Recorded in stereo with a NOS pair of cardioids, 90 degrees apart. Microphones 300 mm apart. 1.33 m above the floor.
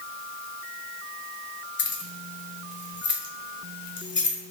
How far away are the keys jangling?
About 0.8 m.